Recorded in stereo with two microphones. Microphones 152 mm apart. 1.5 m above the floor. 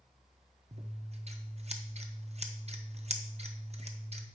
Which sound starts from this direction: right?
Scissors, at 0.7 s.